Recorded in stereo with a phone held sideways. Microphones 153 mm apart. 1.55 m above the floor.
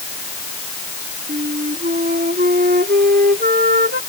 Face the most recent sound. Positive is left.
turn(degrees=-75)  # may be behind; listen again after turning